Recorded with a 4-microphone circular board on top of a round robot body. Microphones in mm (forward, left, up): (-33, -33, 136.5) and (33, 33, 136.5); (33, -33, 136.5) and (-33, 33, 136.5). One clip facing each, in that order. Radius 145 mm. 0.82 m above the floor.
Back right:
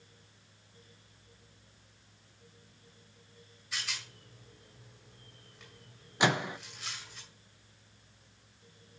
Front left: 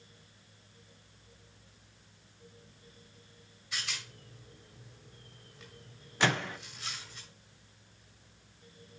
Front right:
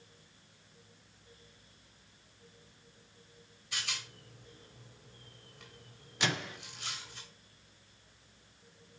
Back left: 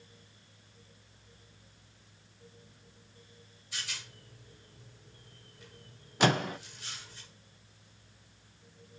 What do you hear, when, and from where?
3.7 s a rattle: 45° right, 3 m
6.2 s a microwave: 155° left, 0.5 m